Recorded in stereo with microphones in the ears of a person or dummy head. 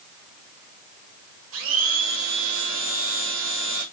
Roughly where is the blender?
Right.